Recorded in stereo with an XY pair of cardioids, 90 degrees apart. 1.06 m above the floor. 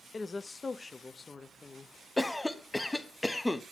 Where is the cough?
15° left, 1.0 m.